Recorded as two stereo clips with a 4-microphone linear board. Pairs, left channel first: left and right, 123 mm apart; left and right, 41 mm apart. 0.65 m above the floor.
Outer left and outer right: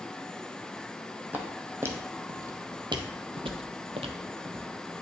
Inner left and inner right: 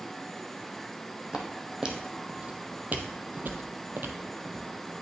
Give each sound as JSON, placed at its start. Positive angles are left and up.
{"t": 1.3, "sound": "footsteps", "side_deg": -15, "distance_m": 1.5}